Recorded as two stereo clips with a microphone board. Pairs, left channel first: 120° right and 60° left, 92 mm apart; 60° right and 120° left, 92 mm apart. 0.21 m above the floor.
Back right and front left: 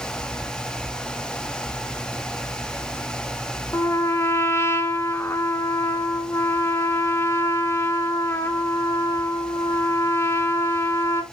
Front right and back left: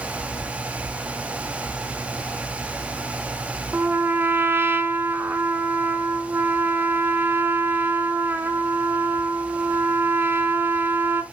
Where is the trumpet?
175° right, 1.0 m.